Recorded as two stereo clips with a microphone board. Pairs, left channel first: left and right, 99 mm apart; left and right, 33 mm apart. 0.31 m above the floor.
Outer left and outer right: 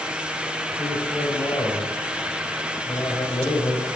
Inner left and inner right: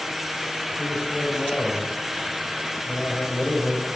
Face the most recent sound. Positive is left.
turn(degrees=40)  # may be behind; listen again after turning